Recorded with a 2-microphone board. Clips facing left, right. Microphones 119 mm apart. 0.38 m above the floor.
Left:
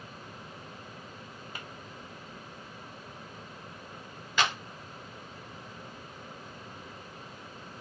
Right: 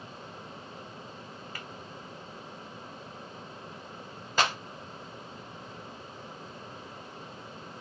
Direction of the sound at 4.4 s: 40° right (ahead or behind).